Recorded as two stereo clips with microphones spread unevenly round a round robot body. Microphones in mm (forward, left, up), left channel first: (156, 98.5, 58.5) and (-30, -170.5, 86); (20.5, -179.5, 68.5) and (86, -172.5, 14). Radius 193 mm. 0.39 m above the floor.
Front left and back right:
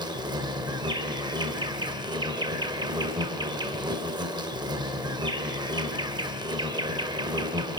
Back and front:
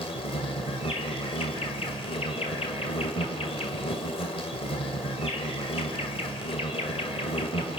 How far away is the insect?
About 1.9 m.